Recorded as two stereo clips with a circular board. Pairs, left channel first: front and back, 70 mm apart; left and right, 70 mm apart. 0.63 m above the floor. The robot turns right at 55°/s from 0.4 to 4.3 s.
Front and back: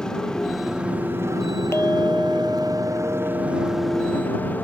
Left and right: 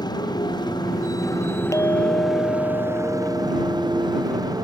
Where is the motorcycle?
80° left; by 4.7 s 65° right.